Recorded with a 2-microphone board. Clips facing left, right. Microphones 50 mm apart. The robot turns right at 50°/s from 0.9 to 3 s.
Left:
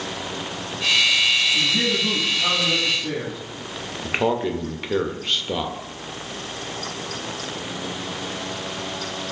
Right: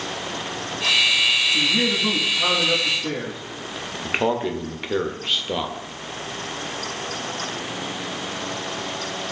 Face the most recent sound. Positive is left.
turn(degrees=-5)  # may be behind; listen again after turning